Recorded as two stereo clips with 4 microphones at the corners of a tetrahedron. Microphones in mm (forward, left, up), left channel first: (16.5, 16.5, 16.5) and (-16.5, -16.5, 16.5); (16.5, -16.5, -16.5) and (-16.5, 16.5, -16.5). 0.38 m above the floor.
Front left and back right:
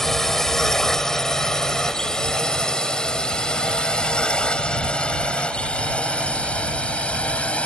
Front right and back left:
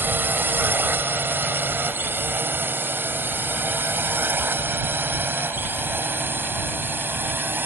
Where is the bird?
I don't hear a bird.